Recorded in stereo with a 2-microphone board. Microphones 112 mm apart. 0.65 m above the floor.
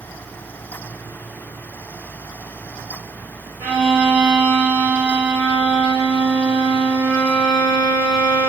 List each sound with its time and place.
3.6 s a violin: 30° right (ahead or behind), 1.7 m